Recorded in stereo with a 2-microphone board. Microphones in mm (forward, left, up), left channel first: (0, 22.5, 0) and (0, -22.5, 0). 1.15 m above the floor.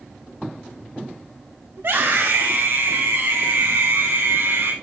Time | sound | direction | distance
1.8 | a scream | 80° right | 6.5 m